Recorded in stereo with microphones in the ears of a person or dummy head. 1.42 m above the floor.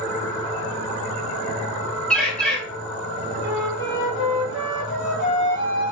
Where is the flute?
65° left (ahead or behind), 1.3 m.